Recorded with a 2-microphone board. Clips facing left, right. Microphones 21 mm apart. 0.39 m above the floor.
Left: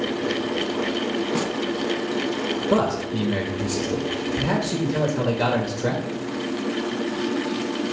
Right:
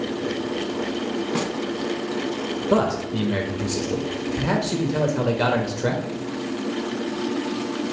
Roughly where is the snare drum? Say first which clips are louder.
Even; centre.